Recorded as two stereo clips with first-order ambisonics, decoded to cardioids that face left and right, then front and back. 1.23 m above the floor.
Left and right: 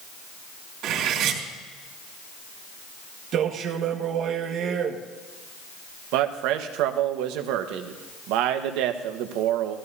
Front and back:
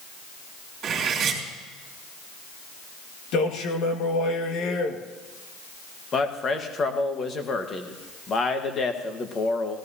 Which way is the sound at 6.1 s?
65° right.